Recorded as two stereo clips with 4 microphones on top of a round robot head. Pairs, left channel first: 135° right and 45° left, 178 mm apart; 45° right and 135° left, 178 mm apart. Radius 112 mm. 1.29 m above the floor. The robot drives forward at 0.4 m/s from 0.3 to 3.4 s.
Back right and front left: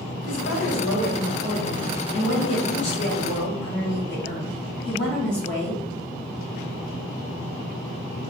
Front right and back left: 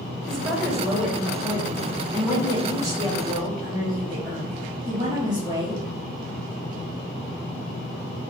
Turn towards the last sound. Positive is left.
turn(degrees=-160)